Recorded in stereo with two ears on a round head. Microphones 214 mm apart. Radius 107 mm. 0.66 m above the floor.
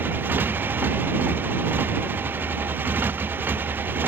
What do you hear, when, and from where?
0.0 s a motorcycle: 10° right (ahead or behind)